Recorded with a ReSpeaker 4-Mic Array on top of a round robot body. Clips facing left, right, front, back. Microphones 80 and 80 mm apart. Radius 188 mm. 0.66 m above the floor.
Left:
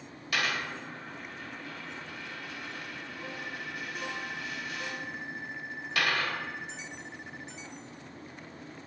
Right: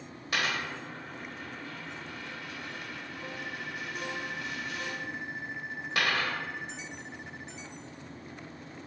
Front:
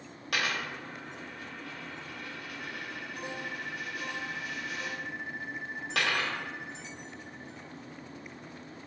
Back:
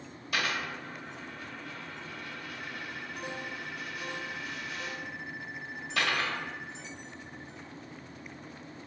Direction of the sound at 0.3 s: 25° right.